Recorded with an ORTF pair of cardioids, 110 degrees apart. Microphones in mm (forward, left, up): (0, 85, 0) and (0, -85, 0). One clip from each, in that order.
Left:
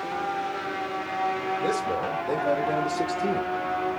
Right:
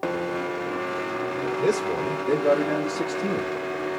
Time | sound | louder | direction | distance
1.6 | a man speaking | right 5 dB | 65° right | 2.5 m